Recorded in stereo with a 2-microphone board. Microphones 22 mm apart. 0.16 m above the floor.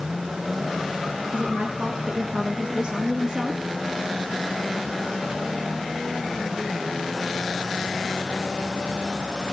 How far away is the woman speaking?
About 3.5 m.